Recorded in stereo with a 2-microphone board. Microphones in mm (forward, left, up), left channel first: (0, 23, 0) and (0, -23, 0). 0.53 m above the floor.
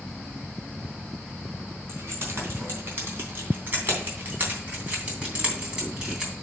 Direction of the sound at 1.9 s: 55° right (ahead or behind).